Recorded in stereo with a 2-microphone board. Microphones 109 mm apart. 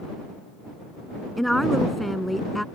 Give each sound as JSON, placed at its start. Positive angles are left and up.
{"t": 1.4, "sound": "a woman speaking", "side_deg": 0}